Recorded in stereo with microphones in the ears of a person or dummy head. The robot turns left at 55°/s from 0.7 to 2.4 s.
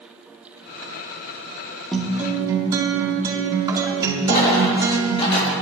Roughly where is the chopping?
No chopping in this recording.